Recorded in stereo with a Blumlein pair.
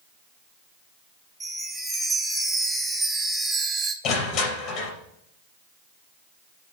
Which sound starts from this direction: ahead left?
Crushing, at 4.0 s.